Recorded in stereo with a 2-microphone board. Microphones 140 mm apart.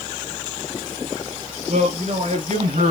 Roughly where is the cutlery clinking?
No cutlery clinking in this recording.